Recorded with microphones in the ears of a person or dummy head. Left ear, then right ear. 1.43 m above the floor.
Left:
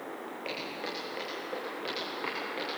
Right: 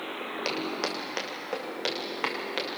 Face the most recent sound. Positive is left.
turn(degrees=-70)  # may be behind; listen again after turning